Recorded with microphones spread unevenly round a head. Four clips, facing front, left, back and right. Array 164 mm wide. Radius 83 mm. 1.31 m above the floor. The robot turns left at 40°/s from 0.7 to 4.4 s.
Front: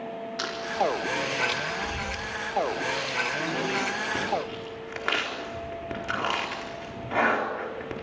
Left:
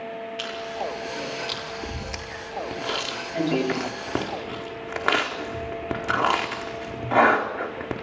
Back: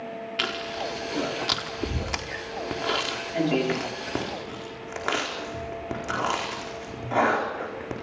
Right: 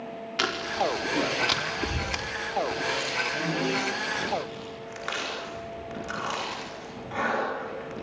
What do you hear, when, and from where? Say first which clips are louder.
0.4 s chewing: right 6 dB, front 5 dB; 110° right, 4.5 m; by 8.0 s 100° left, 4.5 m